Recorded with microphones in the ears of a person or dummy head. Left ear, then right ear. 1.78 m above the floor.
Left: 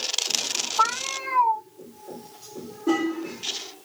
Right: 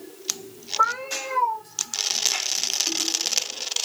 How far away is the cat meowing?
About 2 m.